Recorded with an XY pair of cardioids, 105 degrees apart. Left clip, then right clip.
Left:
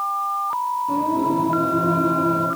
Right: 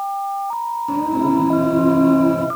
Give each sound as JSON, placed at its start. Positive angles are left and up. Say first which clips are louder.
{"t": 0.9, "sound": "singing", "louder": "right 4 dB", "azimuth_deg": -50, "distance_m": 1.4}